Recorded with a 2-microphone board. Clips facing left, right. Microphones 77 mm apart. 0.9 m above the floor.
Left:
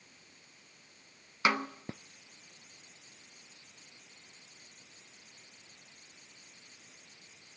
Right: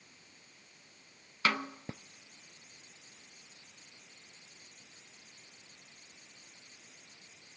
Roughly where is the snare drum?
Centre.